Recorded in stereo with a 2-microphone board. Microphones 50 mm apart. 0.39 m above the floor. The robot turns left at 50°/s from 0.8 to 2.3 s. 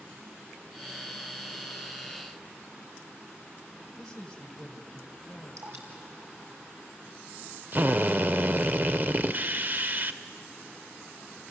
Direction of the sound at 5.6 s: 80° right.